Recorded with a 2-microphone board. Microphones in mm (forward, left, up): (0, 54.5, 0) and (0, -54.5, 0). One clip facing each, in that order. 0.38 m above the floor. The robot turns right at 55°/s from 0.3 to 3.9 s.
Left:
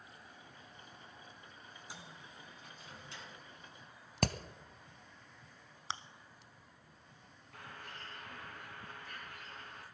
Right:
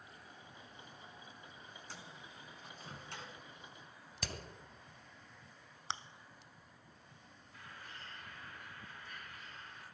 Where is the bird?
65° left (ahead or behind), 4 m.